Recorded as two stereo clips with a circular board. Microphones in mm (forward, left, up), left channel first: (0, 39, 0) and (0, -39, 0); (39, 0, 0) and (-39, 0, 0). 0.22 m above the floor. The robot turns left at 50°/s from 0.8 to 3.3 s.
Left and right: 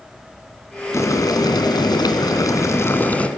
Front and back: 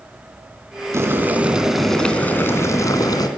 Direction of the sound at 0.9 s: 135° left.